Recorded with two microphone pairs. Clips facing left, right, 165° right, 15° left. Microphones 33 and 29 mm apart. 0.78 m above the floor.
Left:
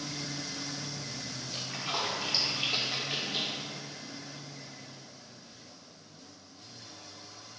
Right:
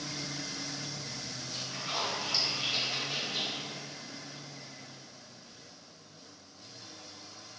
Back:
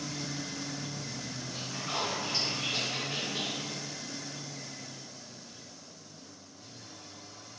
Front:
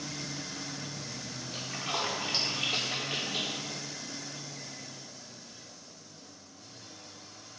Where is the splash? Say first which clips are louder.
Left 2 dB, front 2 dB; 30° left, 0.5 m.